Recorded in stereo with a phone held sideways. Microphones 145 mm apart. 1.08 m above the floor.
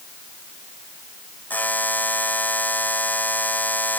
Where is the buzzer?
10° left (ahead or behind).